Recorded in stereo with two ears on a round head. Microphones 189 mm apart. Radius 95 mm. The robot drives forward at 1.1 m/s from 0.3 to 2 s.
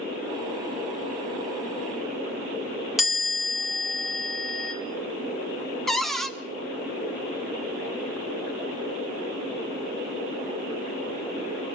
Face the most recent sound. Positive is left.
turn(degrees=0)  # may be behind; listen again after turning